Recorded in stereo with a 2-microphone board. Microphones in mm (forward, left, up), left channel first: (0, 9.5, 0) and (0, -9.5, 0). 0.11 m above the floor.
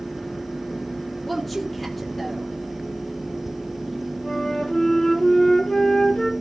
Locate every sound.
1.2 s a woman speaking: 10° left (ahead or behind), 3.5 m
4.2 s a flute: 45° left (ahead or behind), 2 m